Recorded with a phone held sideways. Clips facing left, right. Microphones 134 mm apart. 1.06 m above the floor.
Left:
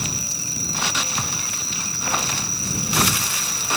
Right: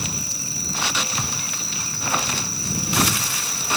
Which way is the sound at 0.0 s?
60° right (ahead or behind).